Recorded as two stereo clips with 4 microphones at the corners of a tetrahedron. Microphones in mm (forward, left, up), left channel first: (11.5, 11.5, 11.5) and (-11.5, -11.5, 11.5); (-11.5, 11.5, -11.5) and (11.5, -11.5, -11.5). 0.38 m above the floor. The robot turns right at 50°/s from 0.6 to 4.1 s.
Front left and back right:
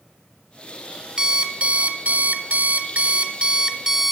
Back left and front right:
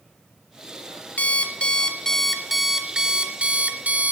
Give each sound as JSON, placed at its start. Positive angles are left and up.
{"t": 1.2, "sound": "an alarm clock", "azimuth_deg": 160, "distance_m": 1.1}